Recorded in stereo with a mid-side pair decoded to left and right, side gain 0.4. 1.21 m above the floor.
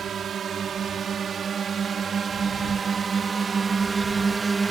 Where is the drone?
60° right; by 4.7 s 30° right.